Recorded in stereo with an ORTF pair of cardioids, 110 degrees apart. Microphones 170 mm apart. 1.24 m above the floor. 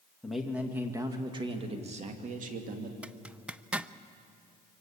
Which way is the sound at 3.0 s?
5° right.